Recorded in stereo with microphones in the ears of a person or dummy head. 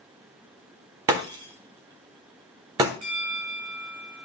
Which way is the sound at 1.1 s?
25° right (ahead or behind).